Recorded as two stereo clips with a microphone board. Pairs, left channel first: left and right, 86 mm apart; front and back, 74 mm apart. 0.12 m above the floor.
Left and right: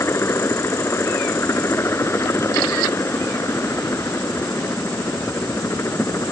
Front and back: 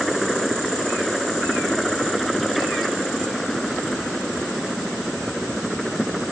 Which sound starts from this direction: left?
A helicopter, at 0.0 s.